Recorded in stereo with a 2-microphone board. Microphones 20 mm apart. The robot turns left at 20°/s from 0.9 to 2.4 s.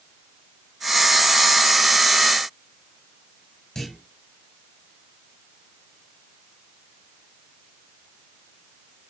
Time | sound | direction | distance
3.8 | a clunk | 25° left (ahead or behind) | 6 m